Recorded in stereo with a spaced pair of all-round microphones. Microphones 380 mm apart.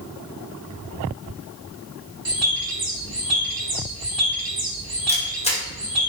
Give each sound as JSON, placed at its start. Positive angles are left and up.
{"t": 2.2, "sound": "a bird", "side_deg": -65, "distance_m": 0.8}
{"t": 5.1, "sound": "a camera shutter", "side_deg": 15, "distance_m": 1.0}